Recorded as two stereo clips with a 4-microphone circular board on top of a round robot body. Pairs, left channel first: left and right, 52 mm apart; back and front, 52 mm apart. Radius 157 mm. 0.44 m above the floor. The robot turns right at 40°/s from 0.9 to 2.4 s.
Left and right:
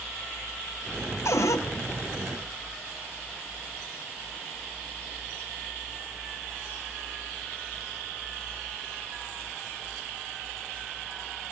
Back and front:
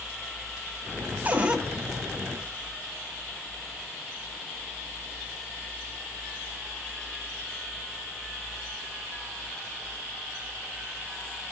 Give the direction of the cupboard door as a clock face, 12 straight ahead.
10 o'clock.